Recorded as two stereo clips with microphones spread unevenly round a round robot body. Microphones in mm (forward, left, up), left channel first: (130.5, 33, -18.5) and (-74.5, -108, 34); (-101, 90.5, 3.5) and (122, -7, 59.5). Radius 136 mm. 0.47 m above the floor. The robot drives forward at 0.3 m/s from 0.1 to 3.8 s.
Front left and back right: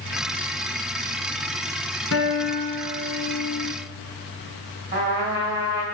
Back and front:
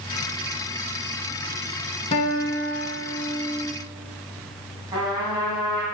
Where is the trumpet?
100° right, 3 m.